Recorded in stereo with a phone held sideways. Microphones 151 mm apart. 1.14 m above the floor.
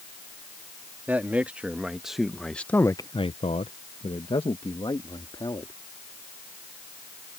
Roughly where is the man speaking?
Centre.